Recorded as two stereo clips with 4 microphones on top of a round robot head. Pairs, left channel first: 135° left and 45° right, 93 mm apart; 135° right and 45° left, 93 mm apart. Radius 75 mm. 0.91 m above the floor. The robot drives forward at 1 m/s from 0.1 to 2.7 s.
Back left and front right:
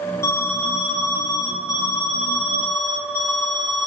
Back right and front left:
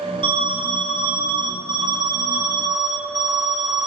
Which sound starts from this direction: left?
An alarm, at 0.2 s.